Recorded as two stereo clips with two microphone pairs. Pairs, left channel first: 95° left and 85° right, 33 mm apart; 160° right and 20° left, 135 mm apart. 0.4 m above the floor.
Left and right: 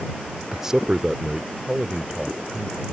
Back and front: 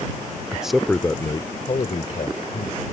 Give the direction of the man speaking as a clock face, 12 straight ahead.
1 o'clock.